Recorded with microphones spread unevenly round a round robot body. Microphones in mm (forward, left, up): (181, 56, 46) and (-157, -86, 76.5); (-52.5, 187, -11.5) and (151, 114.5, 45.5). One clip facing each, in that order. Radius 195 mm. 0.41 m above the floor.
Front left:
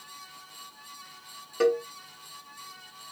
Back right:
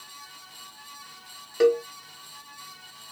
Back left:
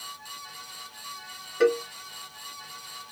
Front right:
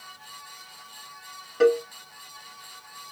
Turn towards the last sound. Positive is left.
turn(degrees=-70)